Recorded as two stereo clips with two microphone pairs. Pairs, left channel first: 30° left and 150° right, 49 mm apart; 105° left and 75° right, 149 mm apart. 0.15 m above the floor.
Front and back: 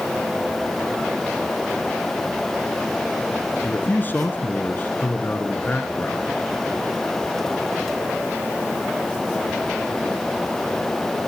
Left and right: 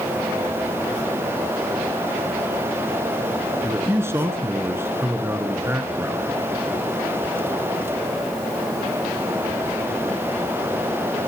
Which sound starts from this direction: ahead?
A man speaking, at 3.6 s.